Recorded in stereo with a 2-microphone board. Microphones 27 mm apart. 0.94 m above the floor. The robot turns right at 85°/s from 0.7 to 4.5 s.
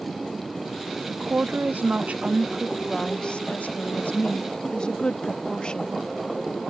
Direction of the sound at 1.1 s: 145° right.